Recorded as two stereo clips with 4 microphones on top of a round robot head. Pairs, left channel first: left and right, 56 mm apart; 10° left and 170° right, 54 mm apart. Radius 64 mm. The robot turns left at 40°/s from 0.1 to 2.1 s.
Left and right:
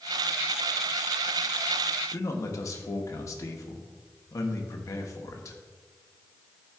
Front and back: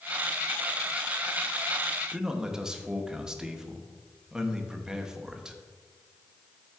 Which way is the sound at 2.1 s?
110° left.